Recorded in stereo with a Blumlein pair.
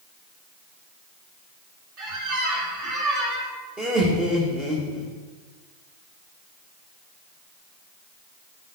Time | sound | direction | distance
2.0 | a squeak | 35° right | 2.0 m
3.8 | laughter | 25° right | 1.9 m